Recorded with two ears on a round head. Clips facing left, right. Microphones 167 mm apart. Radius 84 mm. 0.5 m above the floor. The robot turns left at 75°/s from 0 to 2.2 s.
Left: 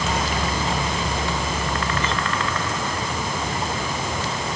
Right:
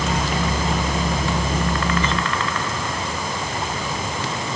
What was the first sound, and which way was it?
Only background noise.